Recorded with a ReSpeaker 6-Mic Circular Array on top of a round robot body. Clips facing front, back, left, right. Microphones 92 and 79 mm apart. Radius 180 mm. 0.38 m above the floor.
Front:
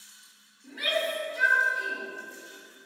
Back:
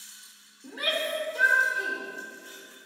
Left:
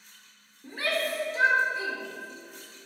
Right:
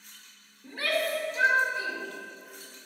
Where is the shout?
145° left, 1.9 m.